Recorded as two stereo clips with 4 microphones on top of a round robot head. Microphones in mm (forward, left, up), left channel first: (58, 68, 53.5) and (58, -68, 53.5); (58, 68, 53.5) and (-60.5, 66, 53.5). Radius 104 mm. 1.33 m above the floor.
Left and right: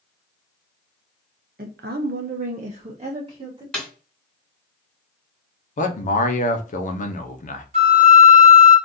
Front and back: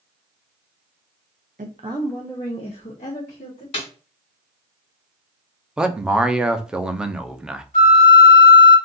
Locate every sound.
1.6 s a woman speaking: 135° right, 0.5 m; by 3.6 s 40° right, 1.2 m
3.7 s a snare drum: 10° left, 1.6 m
5.8 s a man speaking: 100° left, 0.8 m
7.7 s a flute: 50° right, 1.6 m